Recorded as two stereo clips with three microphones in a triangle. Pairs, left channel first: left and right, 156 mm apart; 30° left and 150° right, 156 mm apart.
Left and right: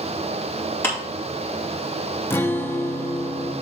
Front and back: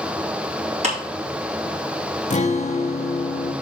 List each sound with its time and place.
0.8 s a clap: 165° left, 4.5 m
2.3 s a guitar: 20° left, 0.8 m